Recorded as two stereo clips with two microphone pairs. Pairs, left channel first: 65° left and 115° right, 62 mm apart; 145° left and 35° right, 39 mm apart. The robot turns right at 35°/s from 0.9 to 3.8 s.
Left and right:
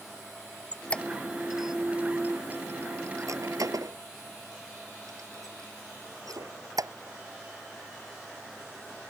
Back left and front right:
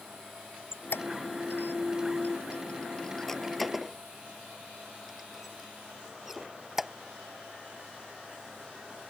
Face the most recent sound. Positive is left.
turn(degrees=-120)